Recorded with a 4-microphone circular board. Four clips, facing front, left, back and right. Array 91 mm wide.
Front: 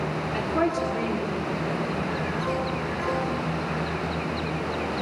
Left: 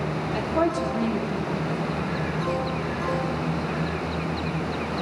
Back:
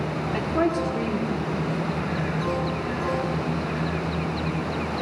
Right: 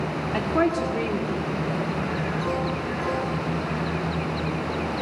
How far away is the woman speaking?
About 1.2 m.